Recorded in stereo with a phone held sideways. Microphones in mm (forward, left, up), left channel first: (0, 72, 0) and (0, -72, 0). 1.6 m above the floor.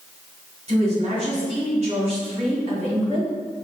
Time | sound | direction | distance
0.7 | a woman speaking | 45° right (ahead or behind) | 1.8 m